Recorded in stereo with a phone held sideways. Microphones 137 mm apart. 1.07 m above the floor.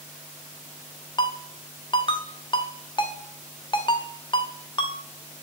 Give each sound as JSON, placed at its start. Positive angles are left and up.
{"t": 1.2, "sound": "a ringtone", "side_deg": 35, "distance_m": 0.6}